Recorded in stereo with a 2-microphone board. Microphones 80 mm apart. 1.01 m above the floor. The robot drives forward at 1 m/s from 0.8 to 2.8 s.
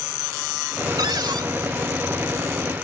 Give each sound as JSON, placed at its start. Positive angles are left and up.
{"t": 1.0, "sound": "a cupboard door", "side_deg": -65}